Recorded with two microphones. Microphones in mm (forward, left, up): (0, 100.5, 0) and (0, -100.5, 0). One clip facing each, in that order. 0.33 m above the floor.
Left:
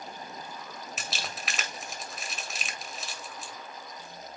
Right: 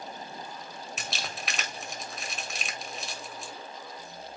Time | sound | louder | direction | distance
1.0 | crumpling | right 1 dB | centre (ahead or behind) | 1.8 m